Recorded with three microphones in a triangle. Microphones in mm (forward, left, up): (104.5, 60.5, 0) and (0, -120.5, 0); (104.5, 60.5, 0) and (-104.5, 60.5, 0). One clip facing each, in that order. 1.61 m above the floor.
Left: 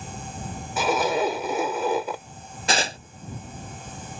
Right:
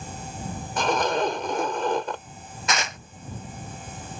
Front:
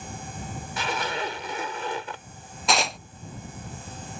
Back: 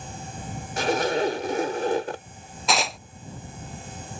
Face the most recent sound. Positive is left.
turn(degrees=90)